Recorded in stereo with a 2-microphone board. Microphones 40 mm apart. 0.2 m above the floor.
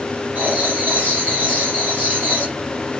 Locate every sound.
0.3 s writing: 50° right (ahead or behind), 4.5 m